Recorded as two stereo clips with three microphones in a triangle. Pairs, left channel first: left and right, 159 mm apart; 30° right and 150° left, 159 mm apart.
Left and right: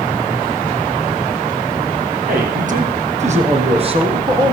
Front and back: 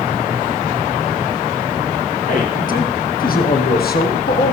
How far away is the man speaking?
About 5 m.